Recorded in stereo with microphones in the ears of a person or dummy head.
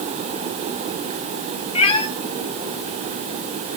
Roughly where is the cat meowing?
Left.